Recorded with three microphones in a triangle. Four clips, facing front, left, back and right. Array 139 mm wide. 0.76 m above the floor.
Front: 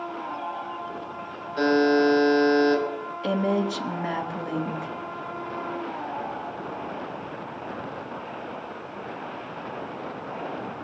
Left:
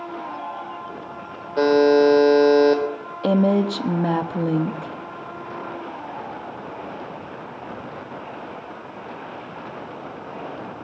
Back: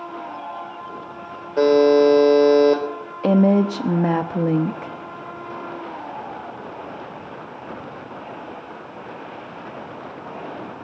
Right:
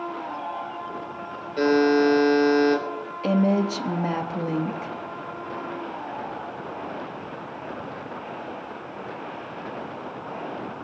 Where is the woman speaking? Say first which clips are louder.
Left 3 dB, back 8 dB; 160° left, 0.9 m.